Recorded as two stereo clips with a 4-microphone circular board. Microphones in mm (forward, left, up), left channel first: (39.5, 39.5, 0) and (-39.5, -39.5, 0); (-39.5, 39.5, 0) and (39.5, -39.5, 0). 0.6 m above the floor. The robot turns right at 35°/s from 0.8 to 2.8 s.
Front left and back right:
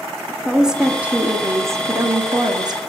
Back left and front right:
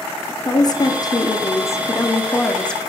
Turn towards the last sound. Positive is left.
turn(degrees=-145)